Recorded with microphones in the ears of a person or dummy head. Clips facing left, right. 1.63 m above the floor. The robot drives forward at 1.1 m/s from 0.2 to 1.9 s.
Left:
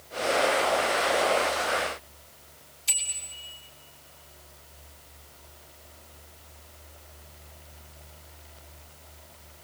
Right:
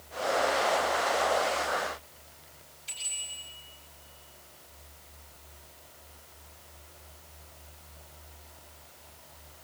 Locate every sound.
2.9 s a bicycle bell: 65° left (ahead or behind), 7.5 m